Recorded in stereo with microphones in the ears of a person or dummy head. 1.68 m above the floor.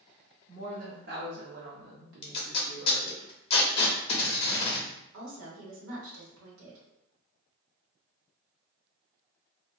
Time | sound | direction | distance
0.5 | a woman speaking | 25° right (ahead or behind) | 0.6 m
2.2 | tape being pulled | 40° left (ahead or behind) | 0.5 m
5.1 | a woman speaking | 85° right | 1.0 m